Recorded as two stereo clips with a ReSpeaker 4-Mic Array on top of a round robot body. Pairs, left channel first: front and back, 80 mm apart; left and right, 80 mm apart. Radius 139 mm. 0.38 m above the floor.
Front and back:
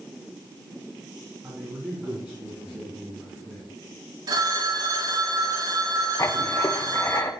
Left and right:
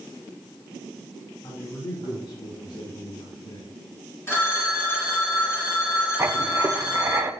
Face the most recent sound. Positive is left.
turn(degrees=-40)